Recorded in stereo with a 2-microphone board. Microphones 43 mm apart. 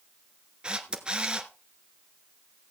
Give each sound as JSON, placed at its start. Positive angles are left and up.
{"t": 0.6, "sound": "a camera shutter", "side_deg": -25, "distance_m": 1.3}